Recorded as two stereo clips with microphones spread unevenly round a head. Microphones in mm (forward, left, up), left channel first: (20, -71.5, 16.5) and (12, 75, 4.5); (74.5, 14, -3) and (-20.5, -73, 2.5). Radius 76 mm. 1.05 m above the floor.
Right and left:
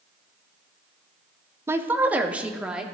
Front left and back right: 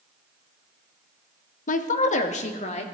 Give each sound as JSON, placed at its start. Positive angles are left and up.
{"t": 1.7, "sound": "a woman speaking", "azimuth_deg": 20, "distance_m": 1.0}